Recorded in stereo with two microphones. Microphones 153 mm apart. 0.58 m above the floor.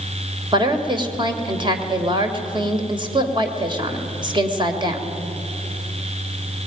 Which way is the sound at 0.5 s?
30° right (ahead or behind).